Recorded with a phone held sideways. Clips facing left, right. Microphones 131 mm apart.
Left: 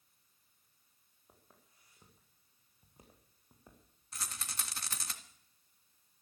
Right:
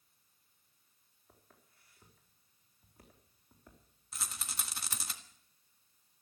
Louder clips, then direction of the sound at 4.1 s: Even; 5° right (ahead or behind).